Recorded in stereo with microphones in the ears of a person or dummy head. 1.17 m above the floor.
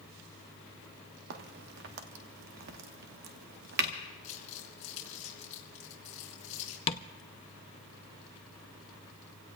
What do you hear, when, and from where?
1.3 s a crack: 50° right (ahead or behind), 1.1 m
4.2 s crumpling: 40° left (ahead or behind), 3.5 m
6.9 s tapping: 30° left (ahead or behind), 0.5 m